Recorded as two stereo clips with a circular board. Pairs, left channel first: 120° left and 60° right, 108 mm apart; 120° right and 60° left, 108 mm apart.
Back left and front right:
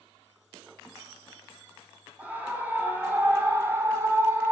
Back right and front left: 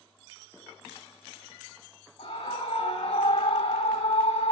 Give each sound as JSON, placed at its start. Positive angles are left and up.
{"t": 2.2, "sound": "a scream", "azimuth_deg": -140, "distance_m": 6.0}